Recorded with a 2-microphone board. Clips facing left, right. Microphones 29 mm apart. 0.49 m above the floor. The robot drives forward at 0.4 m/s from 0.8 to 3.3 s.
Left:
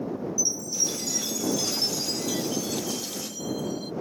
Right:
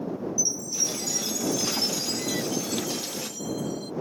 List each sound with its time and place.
0.4 s a chime: 10° left (ahead or behind); by 3.9 s 15° left (ahead or behind)